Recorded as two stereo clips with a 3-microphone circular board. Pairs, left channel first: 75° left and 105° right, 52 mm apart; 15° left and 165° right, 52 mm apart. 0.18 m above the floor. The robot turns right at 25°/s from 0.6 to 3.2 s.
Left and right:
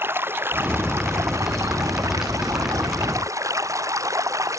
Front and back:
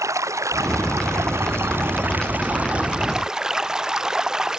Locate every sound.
0.0 s running water: 150° right; by 4.6 s 85° right